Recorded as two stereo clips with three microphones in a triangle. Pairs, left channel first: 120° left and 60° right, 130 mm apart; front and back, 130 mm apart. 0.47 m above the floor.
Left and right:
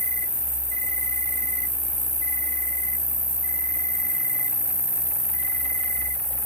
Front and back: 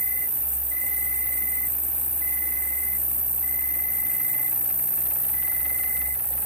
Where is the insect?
65° right, 2.5 m.